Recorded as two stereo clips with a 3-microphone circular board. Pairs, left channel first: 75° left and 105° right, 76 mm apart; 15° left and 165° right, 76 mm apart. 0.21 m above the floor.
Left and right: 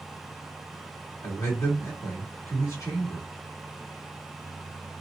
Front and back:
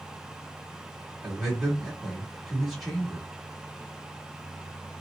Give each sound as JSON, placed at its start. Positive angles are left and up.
{"t": 1.2, "sound": "a man speaking", "azimuth_deg": 105, "distance_m": 1.5}